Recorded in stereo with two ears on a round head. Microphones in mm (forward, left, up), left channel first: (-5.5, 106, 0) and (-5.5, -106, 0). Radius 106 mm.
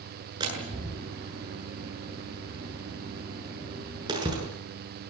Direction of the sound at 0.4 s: 15° right (ahead or behind).